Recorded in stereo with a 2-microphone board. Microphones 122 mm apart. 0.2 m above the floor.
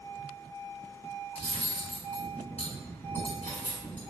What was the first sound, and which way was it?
Cutlery clinking, 60° left (ahead or behind).